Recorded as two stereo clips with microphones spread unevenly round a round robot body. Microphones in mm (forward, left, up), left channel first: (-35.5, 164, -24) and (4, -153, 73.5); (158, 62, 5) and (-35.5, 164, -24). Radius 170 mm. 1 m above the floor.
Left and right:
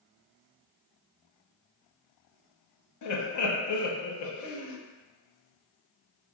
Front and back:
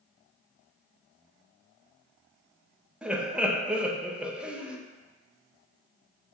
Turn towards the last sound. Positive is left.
turn(degrees=70)